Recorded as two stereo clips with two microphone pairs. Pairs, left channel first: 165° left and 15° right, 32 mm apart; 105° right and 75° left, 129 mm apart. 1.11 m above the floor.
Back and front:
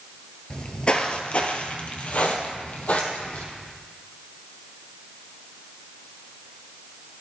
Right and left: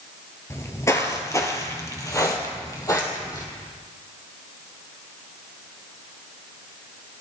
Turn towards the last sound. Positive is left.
turn(degrees=-170)